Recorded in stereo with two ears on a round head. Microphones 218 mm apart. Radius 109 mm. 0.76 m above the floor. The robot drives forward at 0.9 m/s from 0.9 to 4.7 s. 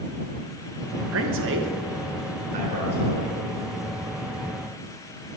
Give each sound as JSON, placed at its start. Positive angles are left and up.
{"t": 1.1, "sound": "a man speaking", "side_deg": -60, "distance_m": 1.1}